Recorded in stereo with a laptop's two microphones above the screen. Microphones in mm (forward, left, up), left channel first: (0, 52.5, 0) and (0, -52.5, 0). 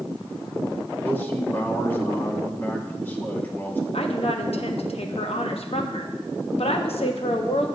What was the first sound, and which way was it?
A man speaking, 20° left (ahead or behind).